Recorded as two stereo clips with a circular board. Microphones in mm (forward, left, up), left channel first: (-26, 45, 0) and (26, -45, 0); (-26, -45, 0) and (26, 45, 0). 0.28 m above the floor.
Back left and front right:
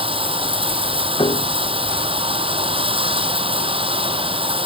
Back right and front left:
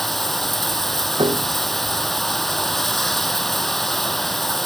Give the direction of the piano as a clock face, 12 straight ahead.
9 o'clock.